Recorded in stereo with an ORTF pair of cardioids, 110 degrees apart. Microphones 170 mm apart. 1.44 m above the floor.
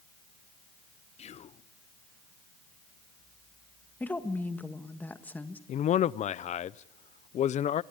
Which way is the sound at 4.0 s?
10° left.